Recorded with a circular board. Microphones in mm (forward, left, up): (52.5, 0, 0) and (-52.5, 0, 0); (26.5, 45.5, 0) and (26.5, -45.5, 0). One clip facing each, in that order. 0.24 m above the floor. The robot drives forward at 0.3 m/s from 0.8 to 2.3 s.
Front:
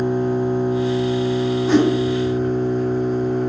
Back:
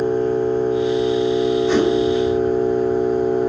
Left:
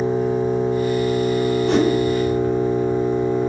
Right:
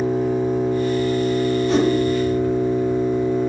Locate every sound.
0.0 s an engine running: 55° left, 1.0 m; by 3.5 s 105° left, 1.0 m
1.7 s a whoosh: 85° left, 0.8 m; by 1.9 s 90° left, 0.8 m